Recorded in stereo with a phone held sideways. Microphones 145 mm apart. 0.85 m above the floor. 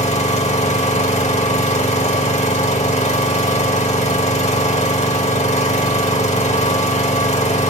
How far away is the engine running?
About 1.7 m.